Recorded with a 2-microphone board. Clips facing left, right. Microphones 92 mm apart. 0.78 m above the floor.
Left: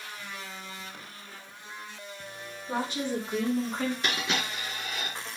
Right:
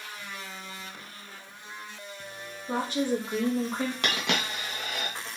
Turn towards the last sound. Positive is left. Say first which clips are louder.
# right 1 dB
turn(degrees=-70)  # may be behind; listen again after turning